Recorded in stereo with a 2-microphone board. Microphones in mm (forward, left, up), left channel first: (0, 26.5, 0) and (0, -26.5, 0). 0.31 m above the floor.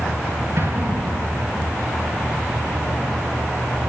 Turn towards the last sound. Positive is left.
turn(degrees=-45)  # may be behind; listen again after turning